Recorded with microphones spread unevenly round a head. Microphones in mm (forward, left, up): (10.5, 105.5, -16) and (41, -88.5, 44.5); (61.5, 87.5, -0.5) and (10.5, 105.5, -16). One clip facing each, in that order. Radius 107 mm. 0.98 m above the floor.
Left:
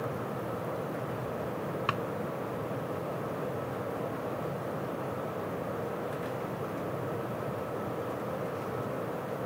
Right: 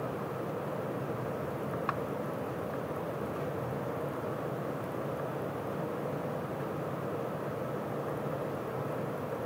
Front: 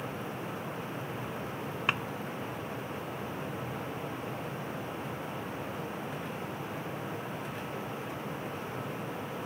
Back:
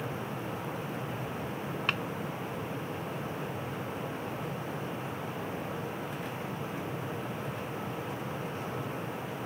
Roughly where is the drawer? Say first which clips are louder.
Left 1 dB, front 2 dB; ahead left.